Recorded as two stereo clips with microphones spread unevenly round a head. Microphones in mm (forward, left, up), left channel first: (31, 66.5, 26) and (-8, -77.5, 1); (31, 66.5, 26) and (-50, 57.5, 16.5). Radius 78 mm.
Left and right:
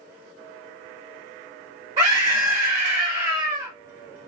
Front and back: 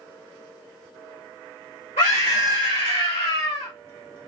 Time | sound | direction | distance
2.0 | a scream | 40° right | 1.2 m